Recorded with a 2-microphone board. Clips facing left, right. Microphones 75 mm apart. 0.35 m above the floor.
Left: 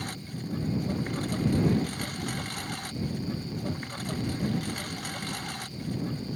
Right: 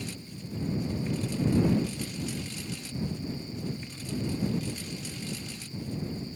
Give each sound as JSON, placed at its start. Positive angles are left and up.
{"t": 0.0, "sound": "a lawn mower", "side_deg": 60}